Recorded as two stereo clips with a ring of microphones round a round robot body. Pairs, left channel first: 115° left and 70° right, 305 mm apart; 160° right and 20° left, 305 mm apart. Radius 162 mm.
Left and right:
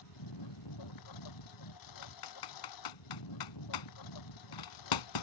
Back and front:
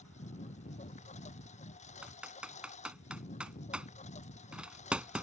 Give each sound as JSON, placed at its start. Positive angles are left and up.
{"t": 0.0, "sound": "a lawn mower", "azimuth_deg": 135}
{"t": 2.0, "sound": "typing on a keyboard", "azimuth_deg": 110}